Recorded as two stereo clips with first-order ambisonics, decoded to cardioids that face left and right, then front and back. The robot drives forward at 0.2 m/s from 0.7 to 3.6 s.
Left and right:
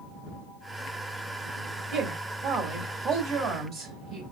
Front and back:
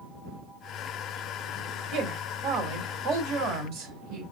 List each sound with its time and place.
1.9 s a woman speaking: 145° right, 2.5 m; by 4.2 s 150° right, 3 m